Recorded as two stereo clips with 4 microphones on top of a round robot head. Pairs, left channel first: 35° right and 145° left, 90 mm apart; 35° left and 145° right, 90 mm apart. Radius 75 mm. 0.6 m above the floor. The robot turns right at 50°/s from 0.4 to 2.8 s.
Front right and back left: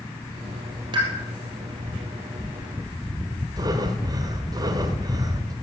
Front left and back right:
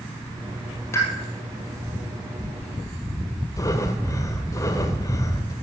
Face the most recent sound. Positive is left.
turn(degrees=95)